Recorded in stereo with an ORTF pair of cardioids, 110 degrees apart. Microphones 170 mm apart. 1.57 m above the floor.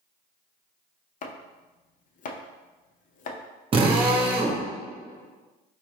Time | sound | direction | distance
1.2 | chopping | 50° left | 0.5 m
3.7 | a drill | 30° right | 0.9 m